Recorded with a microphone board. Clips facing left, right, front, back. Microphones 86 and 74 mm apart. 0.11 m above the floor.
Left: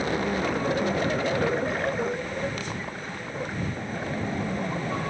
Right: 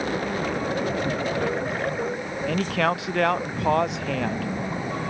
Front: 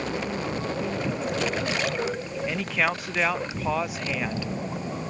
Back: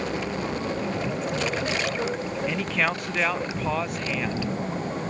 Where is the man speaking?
85° right.